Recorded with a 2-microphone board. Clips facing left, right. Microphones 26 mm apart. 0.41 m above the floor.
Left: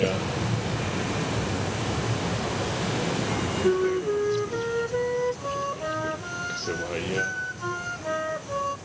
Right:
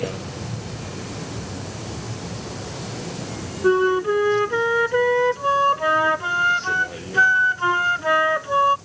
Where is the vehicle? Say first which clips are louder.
Left 4 dB; 25° left (ahead or behind); by 8.9 s 35° left (ahead or behind).